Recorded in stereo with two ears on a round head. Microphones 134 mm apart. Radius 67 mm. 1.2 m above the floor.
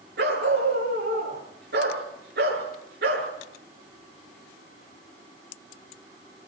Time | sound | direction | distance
0.2 | a dog barking | 75° right (ahead or behind) | 6 m